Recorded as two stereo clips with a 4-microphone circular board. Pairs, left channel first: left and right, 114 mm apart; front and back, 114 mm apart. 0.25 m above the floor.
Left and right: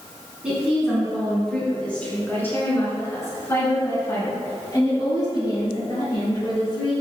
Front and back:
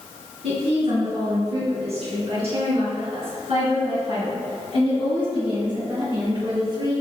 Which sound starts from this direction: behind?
A woman speaking, at 0.4 s.